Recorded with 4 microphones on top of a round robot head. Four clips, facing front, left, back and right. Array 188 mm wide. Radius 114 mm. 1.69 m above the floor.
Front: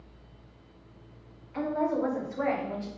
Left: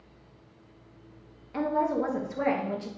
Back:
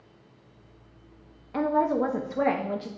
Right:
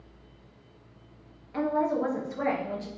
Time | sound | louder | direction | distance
1.5 | a woman speaking | even, back 4 dB | 170° left | 1.3 m